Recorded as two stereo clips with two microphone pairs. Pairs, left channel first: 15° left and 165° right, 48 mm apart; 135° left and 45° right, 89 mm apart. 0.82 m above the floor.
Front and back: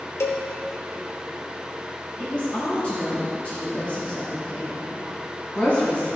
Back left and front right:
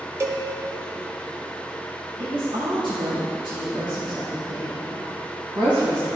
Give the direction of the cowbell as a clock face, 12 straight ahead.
12 o'clock.